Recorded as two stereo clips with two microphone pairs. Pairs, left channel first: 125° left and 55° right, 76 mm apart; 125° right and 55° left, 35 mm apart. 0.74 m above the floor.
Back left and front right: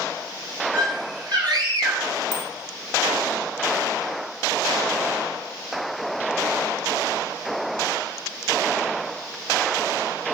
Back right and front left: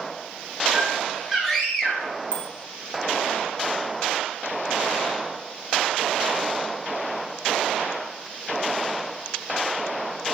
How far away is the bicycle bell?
About 3.5 m.